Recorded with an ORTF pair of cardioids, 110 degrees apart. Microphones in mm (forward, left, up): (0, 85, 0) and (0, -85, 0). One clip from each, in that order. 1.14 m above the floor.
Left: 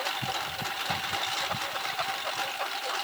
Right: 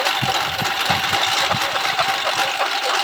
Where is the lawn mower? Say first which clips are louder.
Right 12 dB; 65° right.